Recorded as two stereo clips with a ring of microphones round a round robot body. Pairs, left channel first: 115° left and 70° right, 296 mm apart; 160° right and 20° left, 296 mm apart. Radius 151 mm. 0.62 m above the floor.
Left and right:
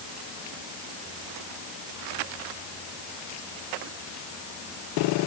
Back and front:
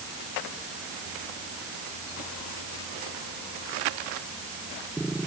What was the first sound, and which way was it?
Only background noise.